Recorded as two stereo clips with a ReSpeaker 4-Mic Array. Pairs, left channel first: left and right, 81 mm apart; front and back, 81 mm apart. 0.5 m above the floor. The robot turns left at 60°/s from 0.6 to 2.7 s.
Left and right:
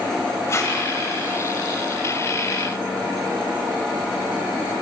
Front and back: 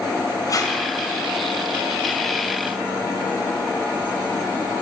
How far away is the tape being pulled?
About 2 m.